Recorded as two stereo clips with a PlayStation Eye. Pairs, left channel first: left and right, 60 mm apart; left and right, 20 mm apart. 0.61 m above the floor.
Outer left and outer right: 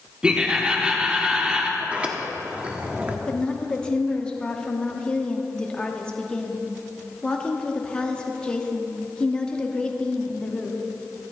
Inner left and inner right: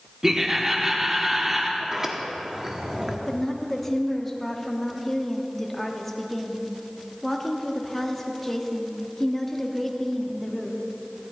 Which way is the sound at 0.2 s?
15° right (ahead or behind).